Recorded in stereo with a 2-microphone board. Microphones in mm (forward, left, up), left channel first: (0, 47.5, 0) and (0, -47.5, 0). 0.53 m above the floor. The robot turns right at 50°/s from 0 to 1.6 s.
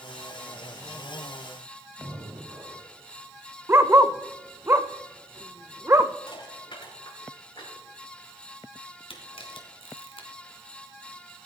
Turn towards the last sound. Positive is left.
turn(degrees=85)